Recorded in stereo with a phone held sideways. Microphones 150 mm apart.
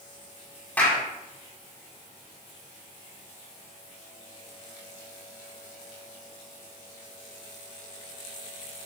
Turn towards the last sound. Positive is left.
turn(degrees=10)  # may be behind; listen again after turning